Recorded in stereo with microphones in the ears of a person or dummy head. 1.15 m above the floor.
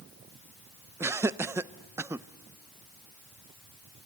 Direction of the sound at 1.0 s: 10° right (ahead or behind).